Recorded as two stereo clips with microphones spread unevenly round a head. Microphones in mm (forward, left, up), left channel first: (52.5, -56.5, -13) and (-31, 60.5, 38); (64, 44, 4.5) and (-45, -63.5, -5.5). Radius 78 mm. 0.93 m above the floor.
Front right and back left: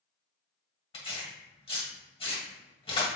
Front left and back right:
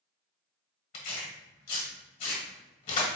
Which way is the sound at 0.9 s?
5° left.